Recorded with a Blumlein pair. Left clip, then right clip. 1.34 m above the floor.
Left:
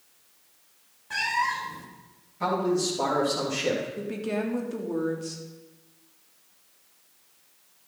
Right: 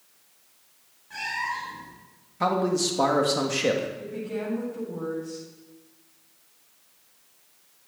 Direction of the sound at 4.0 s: 50° left.